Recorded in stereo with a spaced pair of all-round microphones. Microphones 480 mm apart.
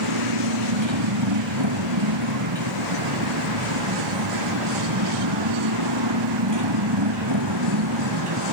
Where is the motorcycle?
65° right (ahead or behind); by 8.5 s 55° right (ahead or behind).